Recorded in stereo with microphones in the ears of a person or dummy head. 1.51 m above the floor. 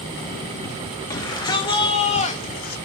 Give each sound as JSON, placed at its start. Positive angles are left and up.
{"t": 1.1, "sound": "a shout", "side_deg": 20, "distance_m": 3.0}